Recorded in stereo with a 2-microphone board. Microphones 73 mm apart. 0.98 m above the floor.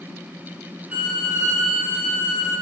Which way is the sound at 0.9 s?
20° right (ahead or behind).